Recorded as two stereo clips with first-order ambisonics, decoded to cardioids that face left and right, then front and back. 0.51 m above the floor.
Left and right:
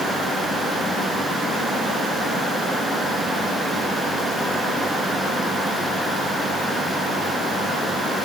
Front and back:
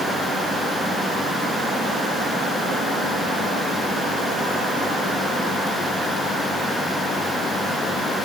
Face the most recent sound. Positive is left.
No sound to turn to.